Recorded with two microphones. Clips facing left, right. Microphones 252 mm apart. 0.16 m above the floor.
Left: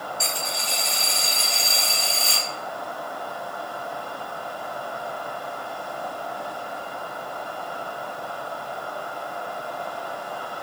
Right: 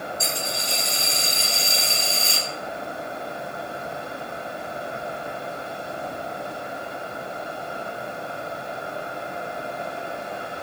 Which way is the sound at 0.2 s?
75° left (ahead or behind).